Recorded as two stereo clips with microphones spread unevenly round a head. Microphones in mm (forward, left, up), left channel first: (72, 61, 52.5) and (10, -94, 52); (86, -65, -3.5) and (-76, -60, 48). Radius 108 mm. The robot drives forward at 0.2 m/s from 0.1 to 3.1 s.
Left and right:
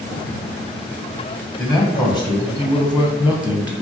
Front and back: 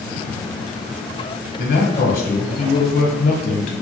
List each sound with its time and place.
1.6 s a man speaking: 20° right, 0.9 m; by 3.8 s 30° right, 0.7 m